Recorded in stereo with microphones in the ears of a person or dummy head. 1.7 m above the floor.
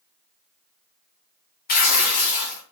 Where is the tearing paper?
50° left (ahead or behind), 1.0 m.